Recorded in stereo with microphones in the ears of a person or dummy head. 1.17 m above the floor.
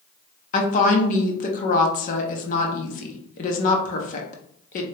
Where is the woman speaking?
35° left (ahead or behind), 0.6 m.